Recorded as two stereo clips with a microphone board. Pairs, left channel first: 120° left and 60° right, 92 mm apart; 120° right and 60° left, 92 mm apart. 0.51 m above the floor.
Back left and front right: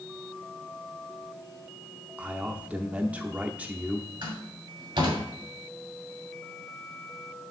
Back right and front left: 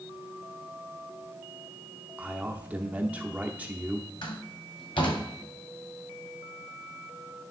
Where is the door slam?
95° right, 2.5 m.